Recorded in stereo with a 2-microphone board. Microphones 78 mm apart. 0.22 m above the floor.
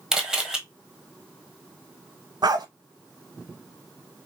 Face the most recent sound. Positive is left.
turn(degrees=-70)  # may be behind; listen again after turning